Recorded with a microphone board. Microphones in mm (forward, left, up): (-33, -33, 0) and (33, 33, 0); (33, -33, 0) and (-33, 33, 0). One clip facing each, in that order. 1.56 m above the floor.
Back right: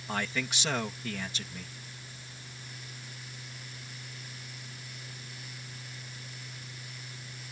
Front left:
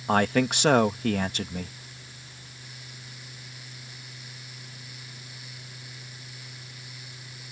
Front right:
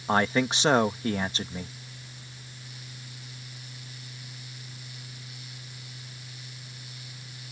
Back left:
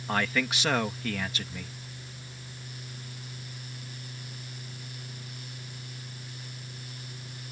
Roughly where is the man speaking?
Ahead.